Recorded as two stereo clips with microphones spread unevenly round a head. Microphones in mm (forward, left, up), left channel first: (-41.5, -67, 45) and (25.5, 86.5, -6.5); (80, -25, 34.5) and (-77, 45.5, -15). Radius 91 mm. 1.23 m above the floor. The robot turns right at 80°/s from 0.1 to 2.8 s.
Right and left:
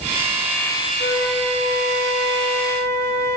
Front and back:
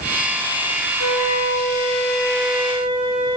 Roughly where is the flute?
Ahead right.